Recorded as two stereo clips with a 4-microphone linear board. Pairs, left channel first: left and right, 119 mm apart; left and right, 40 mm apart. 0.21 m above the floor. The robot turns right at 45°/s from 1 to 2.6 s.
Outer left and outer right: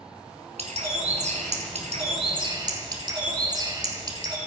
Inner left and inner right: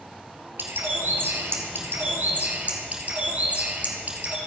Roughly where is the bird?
Right.